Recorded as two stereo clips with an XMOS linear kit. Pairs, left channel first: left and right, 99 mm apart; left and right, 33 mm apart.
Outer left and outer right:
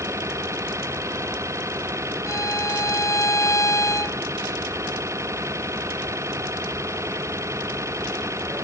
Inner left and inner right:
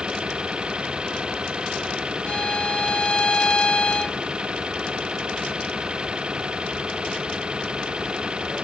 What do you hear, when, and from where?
0.0 s an engine running: 30° right (ahead or behind)
2.3 s a violin: 35° left (ahead or behind)